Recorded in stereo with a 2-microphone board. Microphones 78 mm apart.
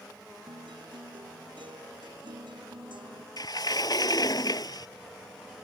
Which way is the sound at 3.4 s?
60° left (ahead or behind).